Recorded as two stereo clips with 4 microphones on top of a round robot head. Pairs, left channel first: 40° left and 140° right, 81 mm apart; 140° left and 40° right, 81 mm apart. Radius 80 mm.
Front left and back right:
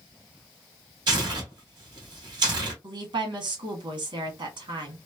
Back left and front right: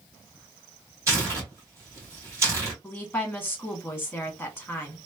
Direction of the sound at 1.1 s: 95° right.